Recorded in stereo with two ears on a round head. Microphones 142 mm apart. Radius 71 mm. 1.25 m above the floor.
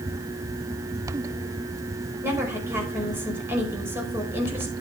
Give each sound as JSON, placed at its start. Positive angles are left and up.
{"t": 2.2, "sound": "a woman speaking", "side_deg": -15, "distance_m": 5.0}